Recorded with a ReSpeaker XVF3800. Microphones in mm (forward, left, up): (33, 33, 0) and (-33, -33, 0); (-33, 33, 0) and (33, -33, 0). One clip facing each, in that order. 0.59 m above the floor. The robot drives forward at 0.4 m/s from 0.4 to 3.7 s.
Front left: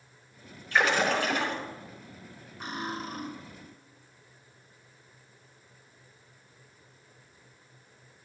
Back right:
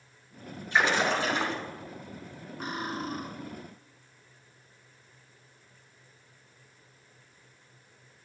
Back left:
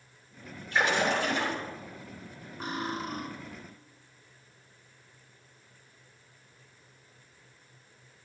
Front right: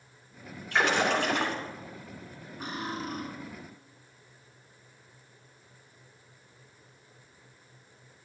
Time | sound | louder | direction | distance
0.7 | a splash | even, front right 1 dB | 65° right | 2.5 m
2.6 | cutlery clinking | back right 1 dB, back left 1 dB | 175° right | 3.5 m